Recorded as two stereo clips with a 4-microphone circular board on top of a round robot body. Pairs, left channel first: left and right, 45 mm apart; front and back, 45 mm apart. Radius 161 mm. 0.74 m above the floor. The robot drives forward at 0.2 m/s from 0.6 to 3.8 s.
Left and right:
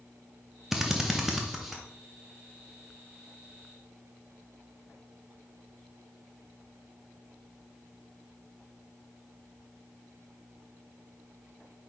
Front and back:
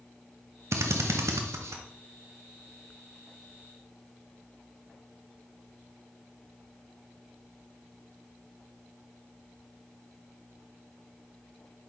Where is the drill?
170° right, 0.5 m; by 1.8 s 175° right, 0.7 m.